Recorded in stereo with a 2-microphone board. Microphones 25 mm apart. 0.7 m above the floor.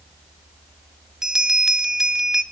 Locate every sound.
1.2 s a bell: 20° right (ahead or behind), 1.5 m